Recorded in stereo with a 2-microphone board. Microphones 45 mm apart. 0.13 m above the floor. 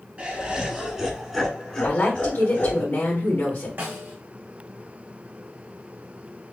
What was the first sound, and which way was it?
Laughter, 30° right (ahead or behind).